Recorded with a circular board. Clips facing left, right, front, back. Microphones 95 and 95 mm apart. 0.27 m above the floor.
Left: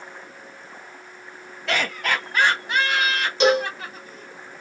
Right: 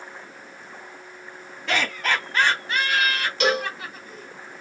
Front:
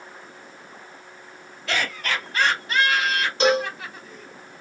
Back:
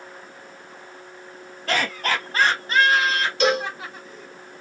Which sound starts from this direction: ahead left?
A cowbell, at 3.4 s.